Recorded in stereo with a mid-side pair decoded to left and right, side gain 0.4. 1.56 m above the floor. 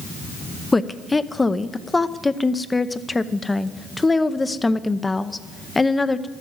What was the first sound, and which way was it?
A woman speaking, 25° left.